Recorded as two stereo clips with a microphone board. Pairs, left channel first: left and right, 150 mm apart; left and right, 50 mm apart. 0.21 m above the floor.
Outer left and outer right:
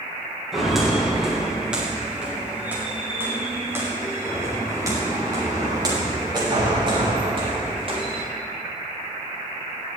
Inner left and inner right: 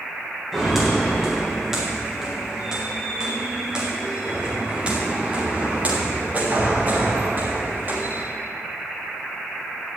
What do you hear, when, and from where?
0.5 s footsteps: centre (ahead or behind), 6.5 m; by 8.2 s 40° right (ahead or behind), 7 m